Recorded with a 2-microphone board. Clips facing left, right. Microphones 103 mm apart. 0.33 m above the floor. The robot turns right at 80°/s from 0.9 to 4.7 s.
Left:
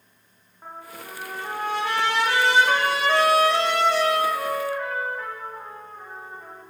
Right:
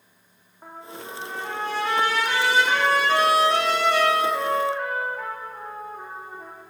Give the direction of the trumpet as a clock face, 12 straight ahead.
12 o'clock.